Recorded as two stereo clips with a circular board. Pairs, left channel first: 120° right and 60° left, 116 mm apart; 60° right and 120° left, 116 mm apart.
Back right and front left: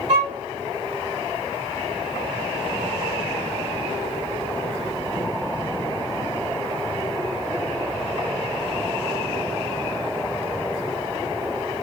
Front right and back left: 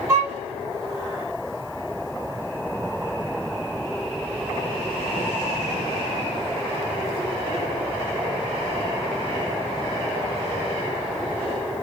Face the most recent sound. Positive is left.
turn(degrees=45)